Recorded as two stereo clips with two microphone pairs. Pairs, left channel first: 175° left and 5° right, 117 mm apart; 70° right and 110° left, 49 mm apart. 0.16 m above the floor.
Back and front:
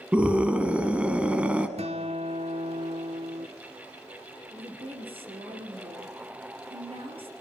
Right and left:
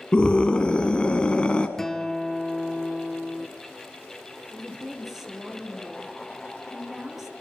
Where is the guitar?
10° left, 1.2 m.